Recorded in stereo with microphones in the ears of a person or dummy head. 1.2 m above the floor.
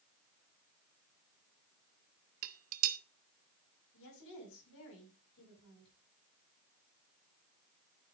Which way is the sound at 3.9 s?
65° left (ahead or behind).